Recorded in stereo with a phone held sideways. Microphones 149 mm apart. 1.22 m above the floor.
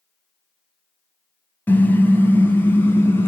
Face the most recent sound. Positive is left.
turn(degrees=15)  # may be behind; listen again after turning